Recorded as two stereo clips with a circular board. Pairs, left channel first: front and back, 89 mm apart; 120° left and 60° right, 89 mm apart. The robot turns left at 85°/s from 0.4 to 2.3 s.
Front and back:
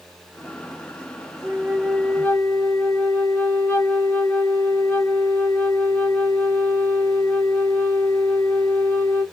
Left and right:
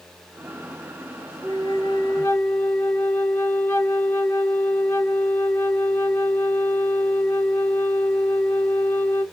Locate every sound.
1.4 s a flute: 135° left, 1.0 m; by 9.2 s 60° left, 1.0 m